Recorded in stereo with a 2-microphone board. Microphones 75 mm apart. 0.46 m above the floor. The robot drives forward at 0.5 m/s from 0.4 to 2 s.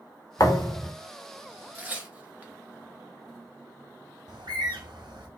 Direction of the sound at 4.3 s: 80° right.